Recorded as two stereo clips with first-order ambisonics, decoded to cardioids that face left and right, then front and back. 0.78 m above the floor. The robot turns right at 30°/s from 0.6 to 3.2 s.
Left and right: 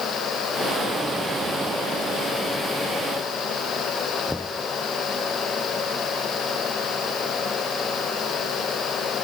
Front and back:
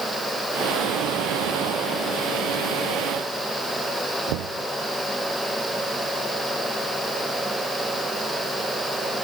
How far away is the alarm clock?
No alarm clock in this recording.